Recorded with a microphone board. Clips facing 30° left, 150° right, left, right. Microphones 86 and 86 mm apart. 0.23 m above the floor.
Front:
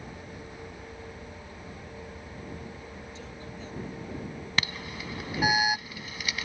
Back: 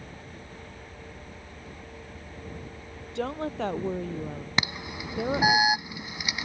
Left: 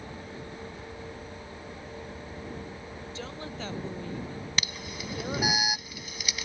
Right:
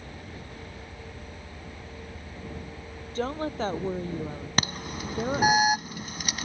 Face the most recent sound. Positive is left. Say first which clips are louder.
# back 2 dB, right 8 dB
turn(degrees=-85)